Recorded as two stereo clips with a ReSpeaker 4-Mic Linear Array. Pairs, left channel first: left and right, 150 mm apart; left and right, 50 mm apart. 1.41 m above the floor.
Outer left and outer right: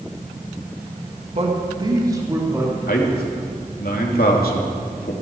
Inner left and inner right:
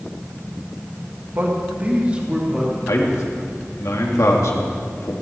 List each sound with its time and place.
1.3 s a man speaking: 45° right (ahead or behind), 2.0 m; by 2.7 s 15° right (ahead or behind), 3.5 m
2.9 s a man speaking: 85° left, 2.5 m